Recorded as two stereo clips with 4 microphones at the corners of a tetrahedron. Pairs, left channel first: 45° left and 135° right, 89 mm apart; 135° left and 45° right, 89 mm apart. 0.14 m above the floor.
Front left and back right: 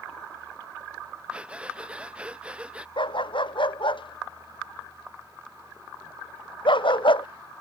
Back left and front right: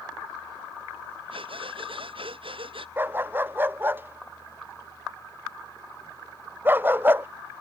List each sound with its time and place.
1.3 s breathing: 55° right
3.0 s a dog barking: 25° left